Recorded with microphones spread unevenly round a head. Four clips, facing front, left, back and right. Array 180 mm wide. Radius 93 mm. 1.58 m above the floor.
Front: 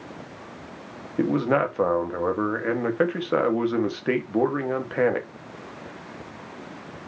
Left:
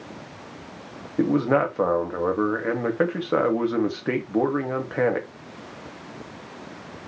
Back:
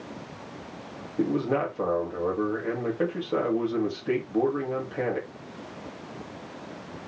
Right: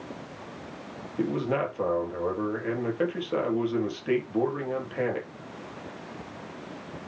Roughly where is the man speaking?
Ahead left.